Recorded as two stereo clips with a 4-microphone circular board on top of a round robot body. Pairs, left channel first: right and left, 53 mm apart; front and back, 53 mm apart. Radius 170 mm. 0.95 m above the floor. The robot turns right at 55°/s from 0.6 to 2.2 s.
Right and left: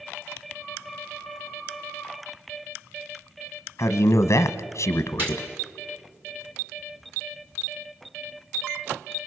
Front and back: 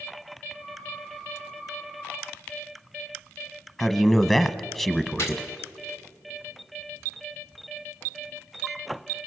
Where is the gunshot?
40° left, 2.5 m.